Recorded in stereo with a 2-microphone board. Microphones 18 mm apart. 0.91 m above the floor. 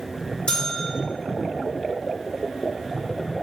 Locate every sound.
0.5 s a bell: 55° left (ahead or behind), 1.6 m